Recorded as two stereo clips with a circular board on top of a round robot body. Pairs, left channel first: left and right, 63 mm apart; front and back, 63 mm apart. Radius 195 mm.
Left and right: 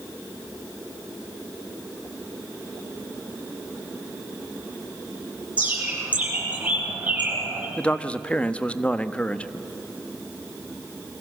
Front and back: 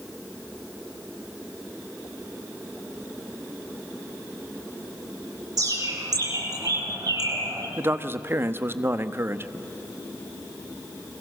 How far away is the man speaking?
About 1.4 m.